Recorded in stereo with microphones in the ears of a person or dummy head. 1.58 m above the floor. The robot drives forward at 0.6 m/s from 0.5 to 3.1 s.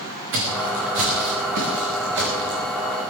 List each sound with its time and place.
0.3 s footsteps: 75° right (ahead or behind), 7.5 m